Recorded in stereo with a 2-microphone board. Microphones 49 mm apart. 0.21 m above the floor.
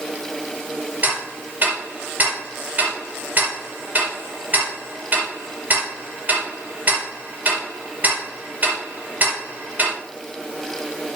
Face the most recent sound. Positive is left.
turn(degrees=-40)  # may be behind; listen again after turning